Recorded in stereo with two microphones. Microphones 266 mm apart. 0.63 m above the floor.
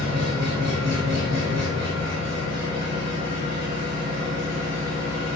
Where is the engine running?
70° right (ahead or behind), 0.8 m.